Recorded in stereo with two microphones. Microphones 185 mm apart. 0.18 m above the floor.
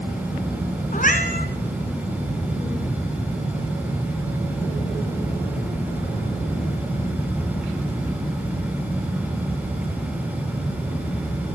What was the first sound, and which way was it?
A cat meowing, 50° left (ahead or behind).